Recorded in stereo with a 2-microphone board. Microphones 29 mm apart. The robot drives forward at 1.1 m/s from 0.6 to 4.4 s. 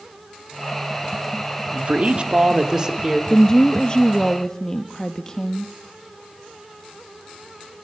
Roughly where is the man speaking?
Right.